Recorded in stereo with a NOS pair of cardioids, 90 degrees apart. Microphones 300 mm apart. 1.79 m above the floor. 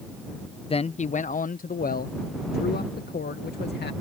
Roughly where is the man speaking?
Ahead.